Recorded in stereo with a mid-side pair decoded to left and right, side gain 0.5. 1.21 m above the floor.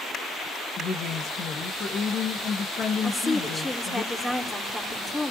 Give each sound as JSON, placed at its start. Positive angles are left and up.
{"t": 0.8, "sound": "a woman speaking", "azimuth_deg": 50, "distance_m": 1.7}
{"t": 3.0, "sound": "a woman speaking", "azimuth_deg": 10, "distance_m": 4.0}